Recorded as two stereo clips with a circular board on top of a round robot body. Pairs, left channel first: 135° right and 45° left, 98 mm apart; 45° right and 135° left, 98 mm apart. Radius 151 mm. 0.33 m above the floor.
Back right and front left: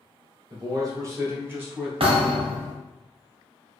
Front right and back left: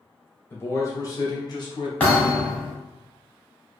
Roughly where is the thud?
Ahead left.